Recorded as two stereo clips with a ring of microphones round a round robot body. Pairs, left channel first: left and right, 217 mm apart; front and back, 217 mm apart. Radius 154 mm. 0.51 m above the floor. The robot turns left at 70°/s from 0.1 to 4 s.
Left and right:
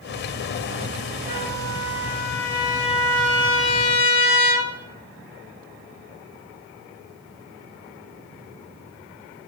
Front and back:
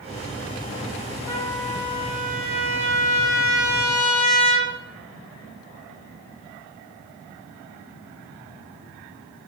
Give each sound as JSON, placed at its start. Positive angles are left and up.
{"t": 1.3, "sound": "a trumpet", "azimuth_deg": -70, "distance_m": 2.0}